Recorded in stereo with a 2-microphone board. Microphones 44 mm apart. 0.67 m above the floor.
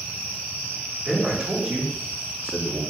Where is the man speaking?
15° right (ahead or behind), 1.5 m; by 2.8 s 50° right (ahead or behind), 1.1 m.